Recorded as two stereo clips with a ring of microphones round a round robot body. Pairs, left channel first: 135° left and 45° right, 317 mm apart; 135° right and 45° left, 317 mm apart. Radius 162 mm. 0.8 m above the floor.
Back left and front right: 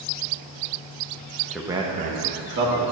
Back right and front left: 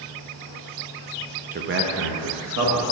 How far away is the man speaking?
About 0.5 m.